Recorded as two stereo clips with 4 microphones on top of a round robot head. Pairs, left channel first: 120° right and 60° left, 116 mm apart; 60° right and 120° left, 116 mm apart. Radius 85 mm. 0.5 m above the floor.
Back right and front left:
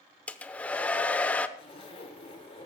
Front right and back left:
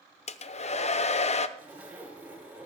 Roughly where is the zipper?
Behind.